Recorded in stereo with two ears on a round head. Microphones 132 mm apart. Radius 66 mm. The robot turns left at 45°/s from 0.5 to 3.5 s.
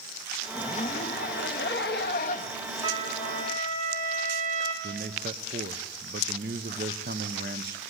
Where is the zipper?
140° left, 1.1 m; by 3.6 s 5° left, 1.1 m.